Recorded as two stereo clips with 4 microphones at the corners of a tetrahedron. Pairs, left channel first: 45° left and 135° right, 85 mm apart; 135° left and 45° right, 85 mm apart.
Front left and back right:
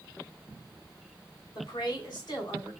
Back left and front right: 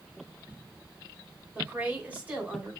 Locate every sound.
1.6 s a woman speaking: 25° left, 3 m